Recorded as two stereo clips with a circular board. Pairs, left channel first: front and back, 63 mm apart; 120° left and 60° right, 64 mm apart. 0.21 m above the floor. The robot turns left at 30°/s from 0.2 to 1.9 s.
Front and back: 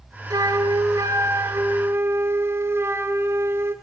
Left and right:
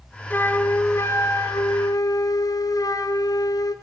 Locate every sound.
0.3 s a flute: straight behind, 1.4 m; by 3.8 s 130° left, 1.4 m